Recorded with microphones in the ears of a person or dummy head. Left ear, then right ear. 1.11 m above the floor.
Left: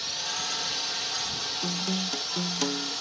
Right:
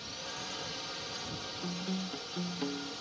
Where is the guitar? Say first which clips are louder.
Left 10 dB; 90° left.